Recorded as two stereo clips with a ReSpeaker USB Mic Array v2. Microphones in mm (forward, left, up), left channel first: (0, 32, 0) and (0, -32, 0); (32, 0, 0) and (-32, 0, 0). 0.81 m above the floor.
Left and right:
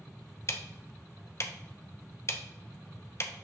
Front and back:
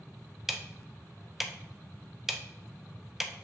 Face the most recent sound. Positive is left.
turn(degrees=100)